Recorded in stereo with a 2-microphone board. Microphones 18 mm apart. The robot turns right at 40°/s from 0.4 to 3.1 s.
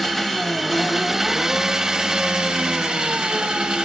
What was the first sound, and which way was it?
An engine running, 175° left.